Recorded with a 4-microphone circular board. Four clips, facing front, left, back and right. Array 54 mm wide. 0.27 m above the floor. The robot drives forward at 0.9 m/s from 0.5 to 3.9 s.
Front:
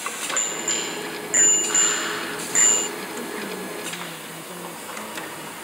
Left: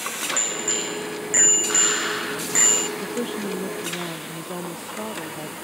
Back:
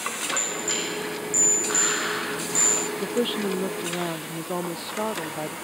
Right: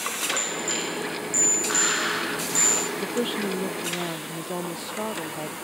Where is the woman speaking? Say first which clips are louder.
Right 1 dB, back 5 dB; 165° right.